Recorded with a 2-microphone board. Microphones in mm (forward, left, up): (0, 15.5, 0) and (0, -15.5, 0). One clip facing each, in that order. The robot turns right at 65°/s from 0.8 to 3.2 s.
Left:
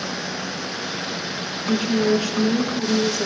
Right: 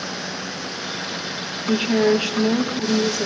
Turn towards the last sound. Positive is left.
turn(degrees=-5)